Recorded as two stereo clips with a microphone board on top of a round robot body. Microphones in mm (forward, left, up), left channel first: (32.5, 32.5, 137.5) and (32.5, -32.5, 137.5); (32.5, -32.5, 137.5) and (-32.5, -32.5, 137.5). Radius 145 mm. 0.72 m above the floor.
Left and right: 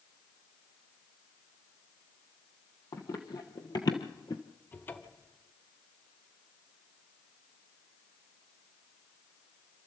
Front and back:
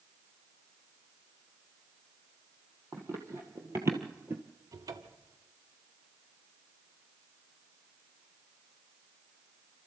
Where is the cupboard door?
150° left, 1.3 m.